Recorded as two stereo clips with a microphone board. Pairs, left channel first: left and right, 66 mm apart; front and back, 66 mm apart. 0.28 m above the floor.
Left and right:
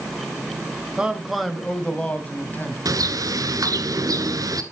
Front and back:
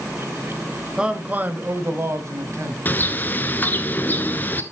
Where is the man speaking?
125° right, 1.2 m; by 2.8 s 145° left, 2 m.